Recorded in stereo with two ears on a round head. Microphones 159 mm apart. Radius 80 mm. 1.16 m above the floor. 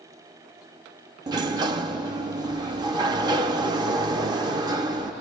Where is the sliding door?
25° right (ahead or behind), 0.5 m.